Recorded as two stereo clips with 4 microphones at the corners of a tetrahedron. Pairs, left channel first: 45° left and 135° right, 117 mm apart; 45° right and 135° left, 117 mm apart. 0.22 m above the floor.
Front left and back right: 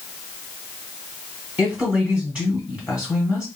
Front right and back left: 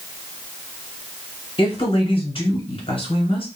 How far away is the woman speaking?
About 1.8 m.